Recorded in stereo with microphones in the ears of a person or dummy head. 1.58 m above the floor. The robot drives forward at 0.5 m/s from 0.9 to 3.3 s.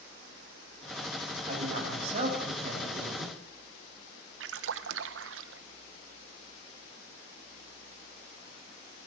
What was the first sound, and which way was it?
A man speaking, 40° right (ahead or behind).